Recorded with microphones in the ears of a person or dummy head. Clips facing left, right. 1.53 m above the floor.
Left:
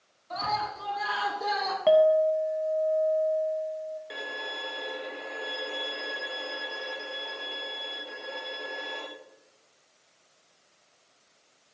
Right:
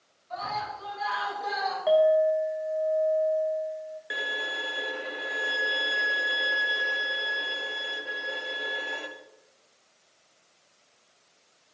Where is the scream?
70° left (ahead or behind), 5 m; by 1.8 s 65° left (ahead or behind), 5.5 m.